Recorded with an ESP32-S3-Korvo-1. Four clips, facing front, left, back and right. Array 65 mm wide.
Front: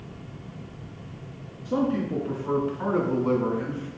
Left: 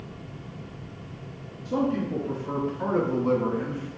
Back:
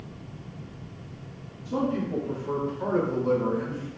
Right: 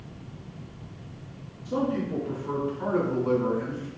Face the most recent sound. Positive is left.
turn(degrees=40)